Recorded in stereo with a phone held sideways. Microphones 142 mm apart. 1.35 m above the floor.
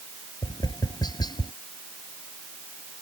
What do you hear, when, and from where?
0.4 s tapping: 30° left (ahead or behind)